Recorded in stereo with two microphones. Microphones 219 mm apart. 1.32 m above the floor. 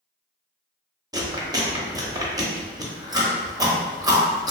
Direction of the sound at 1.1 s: 15° right (ahead or behind).